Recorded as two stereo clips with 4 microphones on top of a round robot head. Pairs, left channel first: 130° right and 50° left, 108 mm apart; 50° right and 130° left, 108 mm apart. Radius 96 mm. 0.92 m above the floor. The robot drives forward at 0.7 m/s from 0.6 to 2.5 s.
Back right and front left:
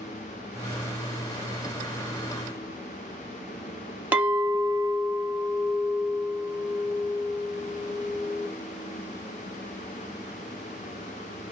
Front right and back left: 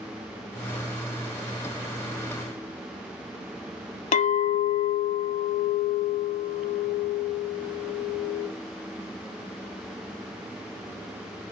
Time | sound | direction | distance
4.1 | a clink | 30° right | 0.7 m